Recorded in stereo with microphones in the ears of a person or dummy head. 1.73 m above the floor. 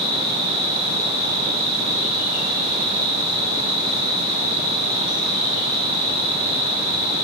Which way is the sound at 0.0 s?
70° left (ahead or behind).